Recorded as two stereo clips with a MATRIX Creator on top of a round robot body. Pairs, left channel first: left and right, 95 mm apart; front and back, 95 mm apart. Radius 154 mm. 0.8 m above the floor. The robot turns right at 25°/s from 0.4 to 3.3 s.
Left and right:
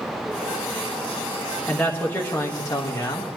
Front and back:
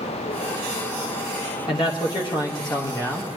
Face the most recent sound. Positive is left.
turn(degrees=55)